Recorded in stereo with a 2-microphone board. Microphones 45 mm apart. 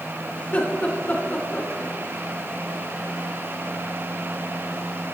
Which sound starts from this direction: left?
Laughter, at 0.4 s.